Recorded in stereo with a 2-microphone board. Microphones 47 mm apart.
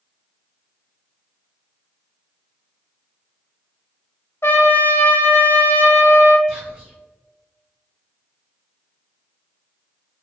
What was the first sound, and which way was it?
A trumpet, 65° left (ahead or behind).